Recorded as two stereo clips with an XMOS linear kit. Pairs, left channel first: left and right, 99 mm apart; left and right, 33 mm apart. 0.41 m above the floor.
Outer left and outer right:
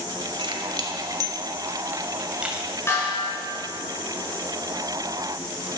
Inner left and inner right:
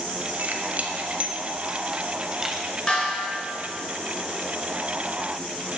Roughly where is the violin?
I don't hear a violin.